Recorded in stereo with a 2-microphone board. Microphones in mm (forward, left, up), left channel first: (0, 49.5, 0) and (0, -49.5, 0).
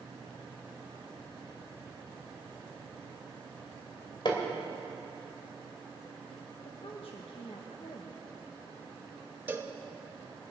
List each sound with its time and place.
4.2 s hammering: 50° left (ahead or behind), 2 m
6.6 s a woman speaking: 70° left (ahead or behind), 1.3 m
9.5 s a cowbell: 20° right (ahead or behind), 1.0 m